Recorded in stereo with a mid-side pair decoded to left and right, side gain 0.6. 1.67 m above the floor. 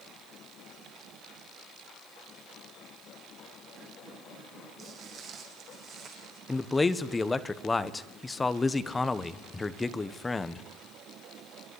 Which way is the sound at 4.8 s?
45° right.